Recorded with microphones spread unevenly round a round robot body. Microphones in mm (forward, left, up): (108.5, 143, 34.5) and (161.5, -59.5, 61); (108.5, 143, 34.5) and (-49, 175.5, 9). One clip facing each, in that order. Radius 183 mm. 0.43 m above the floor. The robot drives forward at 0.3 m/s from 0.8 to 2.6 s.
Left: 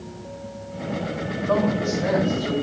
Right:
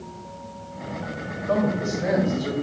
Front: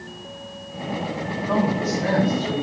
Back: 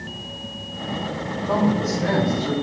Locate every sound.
1.5 s a man speaking: 140° right, 2.5 m; by 2.5 s 145° right, 3 m